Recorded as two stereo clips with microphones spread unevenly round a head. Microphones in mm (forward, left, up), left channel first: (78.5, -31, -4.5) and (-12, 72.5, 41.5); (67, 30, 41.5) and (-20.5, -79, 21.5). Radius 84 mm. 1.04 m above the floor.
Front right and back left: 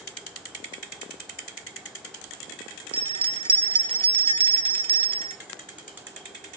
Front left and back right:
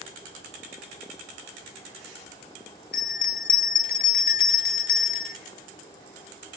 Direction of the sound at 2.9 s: 85° left.